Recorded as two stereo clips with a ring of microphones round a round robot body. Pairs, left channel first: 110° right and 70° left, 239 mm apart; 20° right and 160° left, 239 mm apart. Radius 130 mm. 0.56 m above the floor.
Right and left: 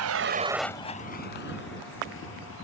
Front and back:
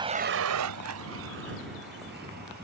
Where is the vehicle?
85° left; by 2.6 s 150° right.